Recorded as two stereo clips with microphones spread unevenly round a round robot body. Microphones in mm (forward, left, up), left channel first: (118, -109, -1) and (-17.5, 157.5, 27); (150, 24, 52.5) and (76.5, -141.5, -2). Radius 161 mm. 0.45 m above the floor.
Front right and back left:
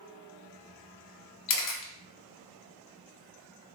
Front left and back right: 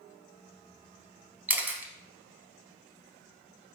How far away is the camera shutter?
About 0.8 m.